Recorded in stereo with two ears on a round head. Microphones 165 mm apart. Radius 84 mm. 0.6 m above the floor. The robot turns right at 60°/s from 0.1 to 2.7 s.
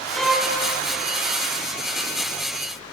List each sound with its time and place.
0.1 s a violin: 5° left (ahead or behind), 0.8 m; by 0.5 s 15° right (ahead or behind), 0.8 m